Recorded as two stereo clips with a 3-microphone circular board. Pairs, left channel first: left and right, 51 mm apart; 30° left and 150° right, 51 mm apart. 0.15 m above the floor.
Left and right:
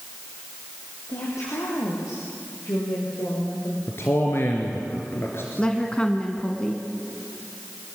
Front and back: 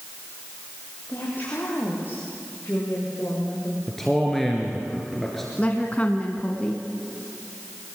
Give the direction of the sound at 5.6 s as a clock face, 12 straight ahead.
11 o'clock.